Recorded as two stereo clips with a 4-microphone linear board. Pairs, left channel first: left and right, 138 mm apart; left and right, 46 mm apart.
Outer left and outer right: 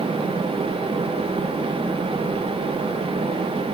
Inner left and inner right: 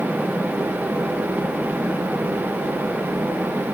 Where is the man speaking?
No man speaking in this recording.